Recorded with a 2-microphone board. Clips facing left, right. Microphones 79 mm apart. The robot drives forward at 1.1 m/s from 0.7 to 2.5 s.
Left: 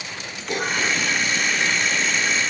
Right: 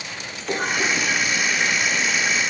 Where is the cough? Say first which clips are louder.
Right 1 dB; 35° right (ahead or behind), 3 m; by 1.1 s 30° right (ahead or behind), 3 m.